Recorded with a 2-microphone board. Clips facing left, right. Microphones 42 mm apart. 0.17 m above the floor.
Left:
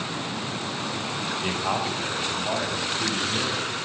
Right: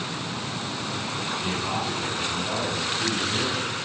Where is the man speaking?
15° left (ahead or behind), 8 m; by 3.6 s 25° left (ahead or behind), 11 m.